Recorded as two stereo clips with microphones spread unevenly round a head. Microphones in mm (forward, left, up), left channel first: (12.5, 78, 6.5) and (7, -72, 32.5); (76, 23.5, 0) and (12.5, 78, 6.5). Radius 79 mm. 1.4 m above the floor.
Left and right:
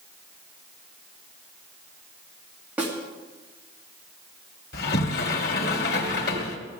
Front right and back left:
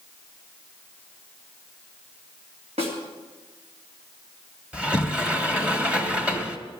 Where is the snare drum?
175° right, 2.5 m.